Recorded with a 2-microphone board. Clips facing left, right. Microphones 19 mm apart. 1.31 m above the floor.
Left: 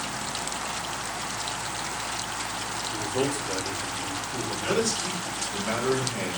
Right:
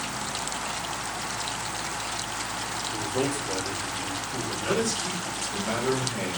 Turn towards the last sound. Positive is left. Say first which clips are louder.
# left 1 dB
turn(degrees=30)  # may be behind; listen again after turning